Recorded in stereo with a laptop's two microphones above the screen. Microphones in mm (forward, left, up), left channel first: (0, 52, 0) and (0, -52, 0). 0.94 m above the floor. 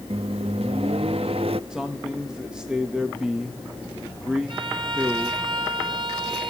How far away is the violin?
About 5.5 m.